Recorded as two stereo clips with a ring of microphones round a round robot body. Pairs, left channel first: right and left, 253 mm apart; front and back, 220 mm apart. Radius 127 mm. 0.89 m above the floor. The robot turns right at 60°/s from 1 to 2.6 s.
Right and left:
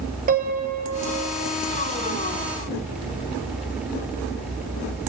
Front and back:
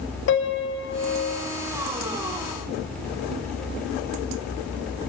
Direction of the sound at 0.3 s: 30° left.